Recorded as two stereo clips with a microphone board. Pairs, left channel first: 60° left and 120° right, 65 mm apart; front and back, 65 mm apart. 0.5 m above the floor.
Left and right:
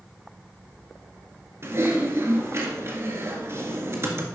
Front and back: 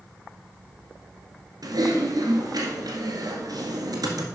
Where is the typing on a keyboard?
165° right, 1.6 m.